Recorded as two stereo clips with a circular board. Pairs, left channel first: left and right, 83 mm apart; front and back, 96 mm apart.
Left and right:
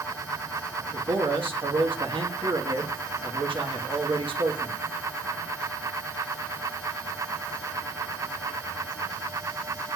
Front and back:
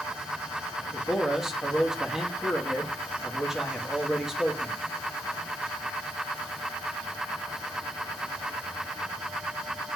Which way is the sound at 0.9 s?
95° right.